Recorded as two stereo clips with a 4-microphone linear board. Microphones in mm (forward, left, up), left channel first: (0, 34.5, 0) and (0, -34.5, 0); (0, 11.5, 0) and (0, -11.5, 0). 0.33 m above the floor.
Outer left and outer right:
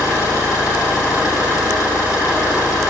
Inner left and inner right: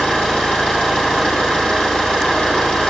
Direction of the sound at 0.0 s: 50° left (ahead or behind).